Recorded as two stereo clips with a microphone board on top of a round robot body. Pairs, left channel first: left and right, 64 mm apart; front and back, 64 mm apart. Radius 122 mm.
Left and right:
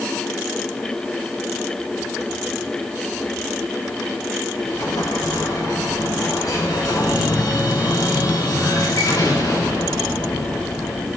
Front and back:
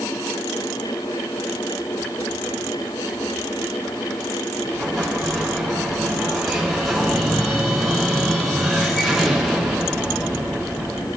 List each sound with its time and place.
4.6 s an explosion: 85° left, 3 m